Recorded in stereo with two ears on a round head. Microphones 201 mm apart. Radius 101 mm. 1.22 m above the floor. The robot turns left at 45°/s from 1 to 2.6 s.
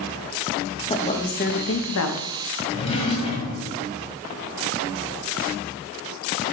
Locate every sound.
0.9 s a woman speaking: 155° left, 1.2 m; by 2.3 s 95° left, 1.2 m
2.7 s a drawer: 25° left (ahead or behind), 1.8 m